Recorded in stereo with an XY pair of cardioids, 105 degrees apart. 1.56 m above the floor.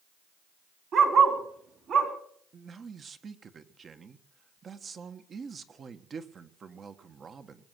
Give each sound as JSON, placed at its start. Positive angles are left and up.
{"t": 0.9, "sound": "a dog barking", "azimuth_deg": -60, "distance_m": 4.0}
{"t": 2.5, "sound": "a man speaking", "azimuth_deg": -40, "distance_m": 1.5}